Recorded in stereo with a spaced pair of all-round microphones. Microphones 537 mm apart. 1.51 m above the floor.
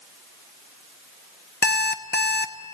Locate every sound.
1.6 s an alarm clock: 20° left (ahead or behind), 0.6 m